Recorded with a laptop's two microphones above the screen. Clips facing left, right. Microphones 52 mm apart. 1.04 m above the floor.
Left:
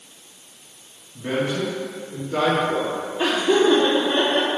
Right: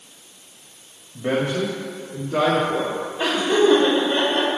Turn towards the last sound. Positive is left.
turn(degrees=25)  # may be behind; listen again after turning